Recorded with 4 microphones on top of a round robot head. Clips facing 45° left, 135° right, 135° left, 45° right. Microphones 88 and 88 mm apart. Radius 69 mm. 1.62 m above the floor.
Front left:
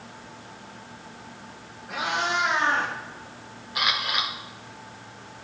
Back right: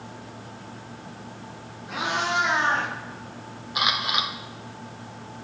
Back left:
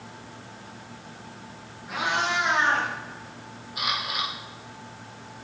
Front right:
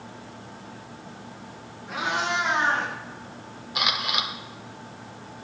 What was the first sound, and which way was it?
A cat meowing, 140° right.